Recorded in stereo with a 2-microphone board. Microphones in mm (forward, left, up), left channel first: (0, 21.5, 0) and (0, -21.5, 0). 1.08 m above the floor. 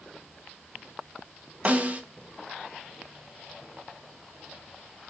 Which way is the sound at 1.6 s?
35° right (ahead or behind).